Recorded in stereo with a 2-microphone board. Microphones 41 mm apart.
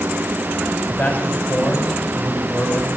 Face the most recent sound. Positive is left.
turn(degrees=40)  # may be behind; listen again after turning